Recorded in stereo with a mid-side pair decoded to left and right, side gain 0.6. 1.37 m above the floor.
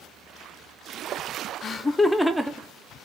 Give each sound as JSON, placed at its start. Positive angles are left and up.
{"t": 1.6, "sound": "laughter", "azimuth_deg": 40, "distance_m": 0.6}